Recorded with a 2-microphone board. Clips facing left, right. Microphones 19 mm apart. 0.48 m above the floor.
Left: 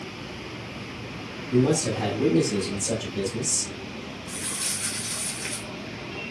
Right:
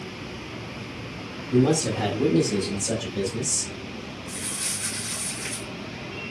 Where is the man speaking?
30° right (ahead or behind), 0.9 m; by 3.7 s 5° left (ahead or behind), 1.7 m.